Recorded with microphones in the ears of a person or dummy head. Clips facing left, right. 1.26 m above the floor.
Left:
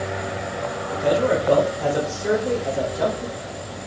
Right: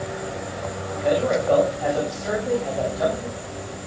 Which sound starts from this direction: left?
A man speaking, at 0.9 s.